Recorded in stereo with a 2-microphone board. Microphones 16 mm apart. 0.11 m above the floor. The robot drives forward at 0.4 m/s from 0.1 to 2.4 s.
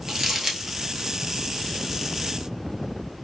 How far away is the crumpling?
About 0.8 m.